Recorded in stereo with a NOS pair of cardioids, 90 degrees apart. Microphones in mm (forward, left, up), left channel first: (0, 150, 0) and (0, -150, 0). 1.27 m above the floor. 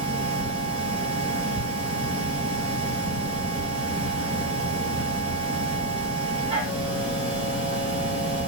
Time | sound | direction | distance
0.0 | a machine running | 20° right | 4 m